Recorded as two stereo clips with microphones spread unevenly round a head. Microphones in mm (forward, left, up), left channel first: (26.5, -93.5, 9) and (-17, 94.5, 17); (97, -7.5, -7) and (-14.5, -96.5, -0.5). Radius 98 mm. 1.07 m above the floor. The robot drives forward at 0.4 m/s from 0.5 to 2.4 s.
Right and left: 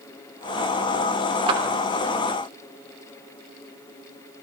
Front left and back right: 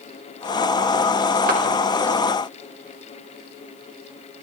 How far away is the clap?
About 3 m.